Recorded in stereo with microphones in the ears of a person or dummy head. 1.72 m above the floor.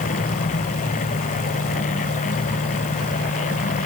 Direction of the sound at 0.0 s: 35° left (ahead or behind).